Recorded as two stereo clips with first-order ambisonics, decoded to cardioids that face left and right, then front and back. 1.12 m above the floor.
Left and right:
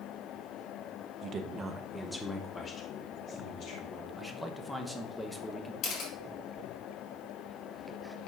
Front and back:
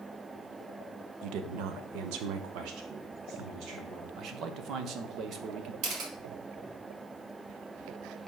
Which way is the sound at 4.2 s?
170° left.